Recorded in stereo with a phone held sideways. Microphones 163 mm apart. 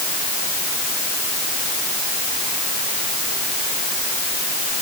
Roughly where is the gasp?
I don't hear a gasp.